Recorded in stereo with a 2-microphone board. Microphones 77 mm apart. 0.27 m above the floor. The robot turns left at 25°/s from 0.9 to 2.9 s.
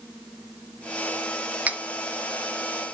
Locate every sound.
1.7 s cutlery clinking: 20° right (ahead or behind), 0.7 m